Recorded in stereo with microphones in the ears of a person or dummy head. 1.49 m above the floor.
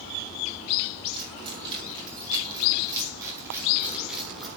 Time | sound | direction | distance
1.1 | keys jangling | 30° right (ahead or behind) | 7 m